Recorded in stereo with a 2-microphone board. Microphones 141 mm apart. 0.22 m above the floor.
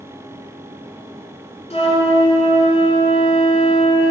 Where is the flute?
45° left (ahead or behind), 1.9 m.